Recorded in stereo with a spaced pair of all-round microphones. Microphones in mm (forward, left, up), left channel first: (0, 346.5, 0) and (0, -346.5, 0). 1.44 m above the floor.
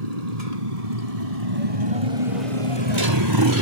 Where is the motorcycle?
60° right (ahead or behind); by 3.6 s 25° right (ahead or behind).